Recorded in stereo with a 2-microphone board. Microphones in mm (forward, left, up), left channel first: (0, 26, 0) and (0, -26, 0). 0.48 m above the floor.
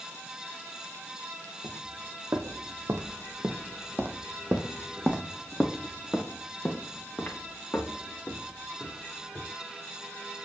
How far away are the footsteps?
About 1.7 m.